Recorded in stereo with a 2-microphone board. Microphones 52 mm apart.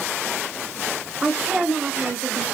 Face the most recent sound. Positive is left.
turn(degrees=-15)  # may be behind; listen again after turning